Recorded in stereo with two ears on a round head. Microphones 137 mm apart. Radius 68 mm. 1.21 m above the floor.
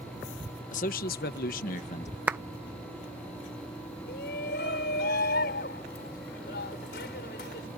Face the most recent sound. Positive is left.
turn(degrees=75)  # may be behind; listen again after turning